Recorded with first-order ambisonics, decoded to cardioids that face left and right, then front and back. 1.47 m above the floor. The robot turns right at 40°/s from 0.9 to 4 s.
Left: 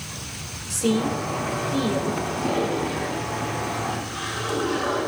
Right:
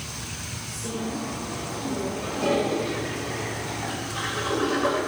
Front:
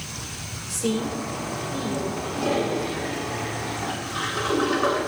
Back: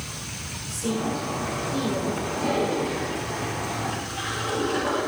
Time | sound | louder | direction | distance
0.7 | a woman speaking | left 10 dB, front 1 dB | 60° left | 2.5 m
2.2 | a toilet flushing | even, front 1 dB | 75° right | 7.5 m